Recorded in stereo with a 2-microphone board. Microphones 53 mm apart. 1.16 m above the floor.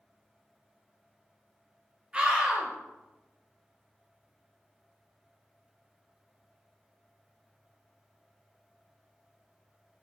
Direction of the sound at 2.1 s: 20° right (ahead or behind).